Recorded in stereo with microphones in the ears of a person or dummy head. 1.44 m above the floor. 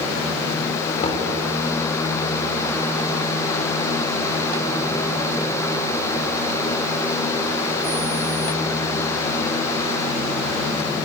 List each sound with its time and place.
1.0 s knocking: 35° left (ahead or behind), 4 m